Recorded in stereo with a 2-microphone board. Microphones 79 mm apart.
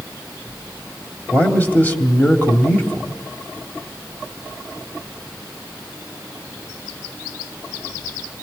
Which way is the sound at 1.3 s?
20° left (ahead or behind).